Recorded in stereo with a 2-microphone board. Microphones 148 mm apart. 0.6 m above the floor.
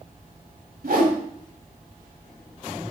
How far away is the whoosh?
About 1.5 m.